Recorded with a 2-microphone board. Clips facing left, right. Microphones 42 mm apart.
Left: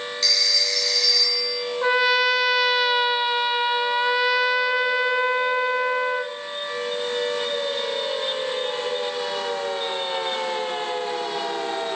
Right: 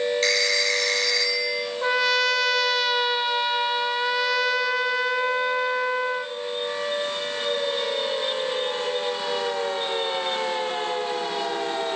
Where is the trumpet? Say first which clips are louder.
Left 3 dB; 10° left (ahead or behind), 0.8 m.